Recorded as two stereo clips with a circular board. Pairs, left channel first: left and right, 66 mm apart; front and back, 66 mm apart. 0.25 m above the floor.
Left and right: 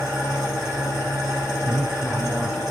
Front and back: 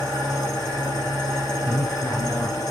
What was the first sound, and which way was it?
An engine running, 10° right.